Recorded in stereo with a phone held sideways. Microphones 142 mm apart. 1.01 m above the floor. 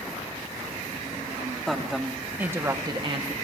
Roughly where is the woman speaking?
Centre.